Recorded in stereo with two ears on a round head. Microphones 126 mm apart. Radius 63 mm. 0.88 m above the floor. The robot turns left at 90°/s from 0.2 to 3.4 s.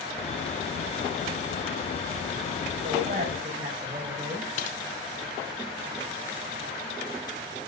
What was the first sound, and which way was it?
A woman speaking, 100° right.